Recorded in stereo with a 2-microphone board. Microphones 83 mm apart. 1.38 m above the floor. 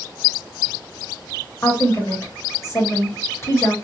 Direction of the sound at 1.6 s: 35° left (ahead or behind).